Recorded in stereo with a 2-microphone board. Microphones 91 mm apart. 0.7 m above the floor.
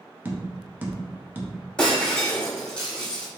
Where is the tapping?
20° right (ahead or behind), 0.6 m.